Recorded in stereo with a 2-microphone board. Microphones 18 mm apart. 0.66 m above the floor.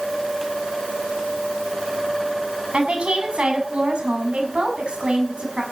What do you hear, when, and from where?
2.7 s a woman speaking: 80° right, 6 m; by 5.6 s 60° right (ahead or behind), 6 m